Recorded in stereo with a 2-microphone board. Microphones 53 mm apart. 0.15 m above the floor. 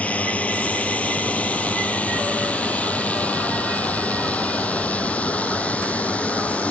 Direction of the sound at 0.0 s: 25° left (ahead or behind).